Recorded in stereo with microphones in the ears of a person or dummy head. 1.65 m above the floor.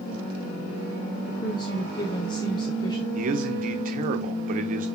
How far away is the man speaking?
About 1.1 m.